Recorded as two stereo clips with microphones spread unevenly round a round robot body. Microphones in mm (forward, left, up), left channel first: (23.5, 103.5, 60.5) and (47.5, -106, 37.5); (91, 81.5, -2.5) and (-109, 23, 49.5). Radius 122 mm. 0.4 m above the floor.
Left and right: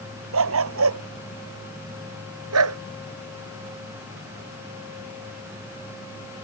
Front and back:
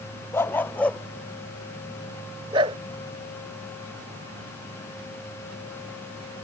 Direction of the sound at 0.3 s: 65° right.